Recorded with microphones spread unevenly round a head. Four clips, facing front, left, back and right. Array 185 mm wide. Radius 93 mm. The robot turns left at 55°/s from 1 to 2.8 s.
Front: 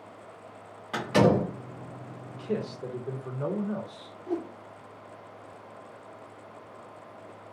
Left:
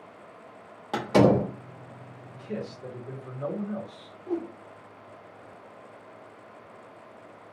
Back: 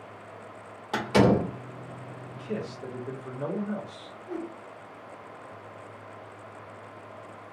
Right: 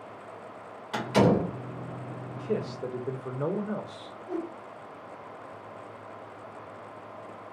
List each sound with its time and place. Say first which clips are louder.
0.9 s a door slam: left 3 dB, back 1 dB; 110° left, 0.9 m; by 1.5 s 85° left, 0.9 m
2.3 s a man speaking: right 4 dB, front 3 dB; 50° right, 0.8 m; by 4.2 s 75° right, 0.8 m
4.3 s a whoosh: left 3 dB, front 3 dB; 45° left, 0.7 m